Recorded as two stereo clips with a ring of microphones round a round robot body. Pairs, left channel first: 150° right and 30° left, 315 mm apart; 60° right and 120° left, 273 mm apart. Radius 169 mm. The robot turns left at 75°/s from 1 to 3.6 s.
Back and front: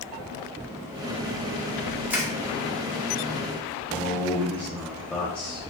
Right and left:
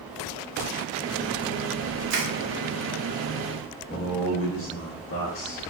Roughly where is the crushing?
Behind left.